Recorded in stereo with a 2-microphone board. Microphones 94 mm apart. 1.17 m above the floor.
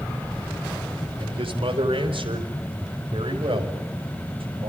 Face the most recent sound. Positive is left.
turn(degrees=-70)  # may be behind; listen again after turning